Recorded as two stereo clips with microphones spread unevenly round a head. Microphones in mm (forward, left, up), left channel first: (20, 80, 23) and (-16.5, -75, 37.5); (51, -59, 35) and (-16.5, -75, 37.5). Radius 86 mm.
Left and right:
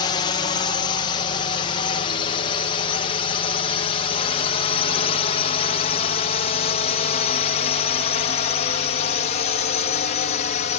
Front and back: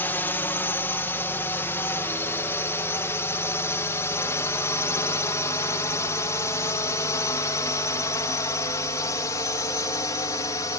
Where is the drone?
50° left.